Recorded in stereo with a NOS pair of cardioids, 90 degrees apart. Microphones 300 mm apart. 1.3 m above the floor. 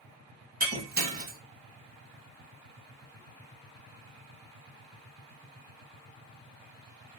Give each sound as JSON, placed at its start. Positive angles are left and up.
{"t": 0.6, "sound": "breaking glass", "azimuth_deg": -30, "distance_m": 1.3}